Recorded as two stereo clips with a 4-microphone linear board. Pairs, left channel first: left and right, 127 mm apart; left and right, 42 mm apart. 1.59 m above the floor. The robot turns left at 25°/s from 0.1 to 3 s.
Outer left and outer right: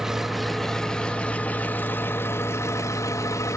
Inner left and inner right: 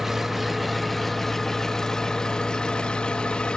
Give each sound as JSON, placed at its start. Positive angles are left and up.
{"t": 0.0, "sound": "an engine running", "side_deg": -5, "distance_m": 1.0}